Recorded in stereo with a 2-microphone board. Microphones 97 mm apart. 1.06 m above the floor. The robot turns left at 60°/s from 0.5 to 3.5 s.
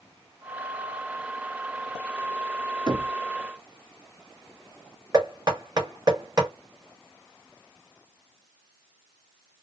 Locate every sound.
2.9 s knocking: 50° right (ahead or behind), 0.5 m; by 3.1 s 60° right (ahead or behind), 0.5 m
5.1 s knocking: 40° right (ahead or behind), 1.4 m